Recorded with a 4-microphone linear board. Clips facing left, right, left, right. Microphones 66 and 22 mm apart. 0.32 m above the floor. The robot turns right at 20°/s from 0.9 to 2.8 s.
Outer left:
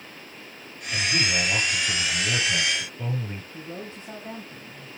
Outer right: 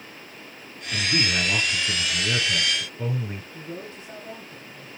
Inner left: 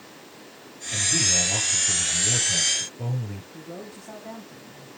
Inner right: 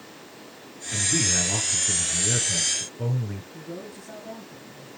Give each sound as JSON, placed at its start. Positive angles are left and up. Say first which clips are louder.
{"t": 0.9, "sound": "a man speaking", "louder": "even, inner left 1 dB", "azimuth_deg": -40, "distance_m": 4.5}
{"t": 3.5, "sound": "a man speaking", "louder": "even, inner right 1 dB", "side_deg": 35, "distance_m": 2.0}